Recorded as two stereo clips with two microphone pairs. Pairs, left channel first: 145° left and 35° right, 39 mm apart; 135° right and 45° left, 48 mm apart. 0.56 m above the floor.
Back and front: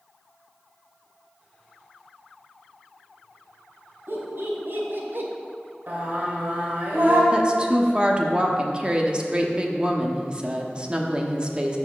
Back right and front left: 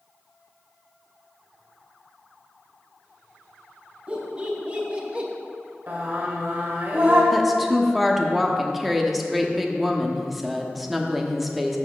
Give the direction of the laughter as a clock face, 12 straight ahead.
1 o'clock.